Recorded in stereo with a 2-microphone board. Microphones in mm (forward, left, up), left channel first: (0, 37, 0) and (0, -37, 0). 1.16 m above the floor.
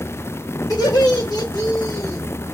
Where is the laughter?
65° left (ahead or behind), 1.9 m; by 2.2 s 40° left (ahead or behind), 1.9 m.